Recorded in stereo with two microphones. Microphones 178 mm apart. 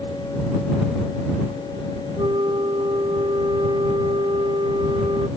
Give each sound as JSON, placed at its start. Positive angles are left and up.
{"t": 2.2, "sound": "a flute", "side_deg": -25}